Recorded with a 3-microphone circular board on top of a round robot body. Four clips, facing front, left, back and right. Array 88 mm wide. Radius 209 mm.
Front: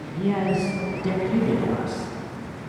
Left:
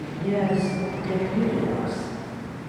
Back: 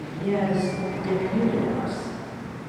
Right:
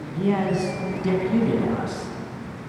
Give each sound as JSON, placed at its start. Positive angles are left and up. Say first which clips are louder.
{"t": 0.1, "sound": "a man speaking", "louder": "right 1 dB, front 1 dB", "azimuth_deg": -65, "distance_m": 6.5}